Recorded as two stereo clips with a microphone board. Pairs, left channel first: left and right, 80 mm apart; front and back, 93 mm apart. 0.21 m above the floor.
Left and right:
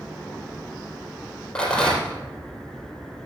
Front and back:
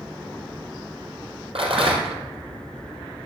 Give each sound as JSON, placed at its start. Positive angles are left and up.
{"t": 1.6, "sound": "a rattle", "azimuth_deg": 170, "distance_m": 4.0}